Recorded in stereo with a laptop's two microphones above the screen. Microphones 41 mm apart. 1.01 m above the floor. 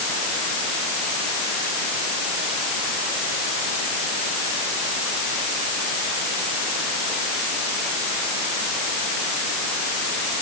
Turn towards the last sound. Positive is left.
No sound to turn to.